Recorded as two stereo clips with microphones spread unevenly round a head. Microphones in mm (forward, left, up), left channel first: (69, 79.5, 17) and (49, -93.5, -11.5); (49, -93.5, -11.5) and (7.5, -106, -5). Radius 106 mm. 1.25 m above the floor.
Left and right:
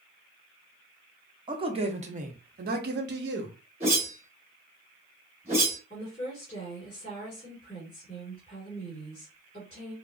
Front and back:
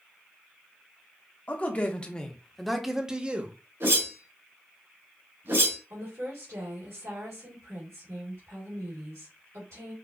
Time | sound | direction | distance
1.5 | a man speaking | 35° right | 1.1 m
3.8 | a whoosh | 160° right | 2 m
5.9 | a woman speaking | 150° left | 1.8 m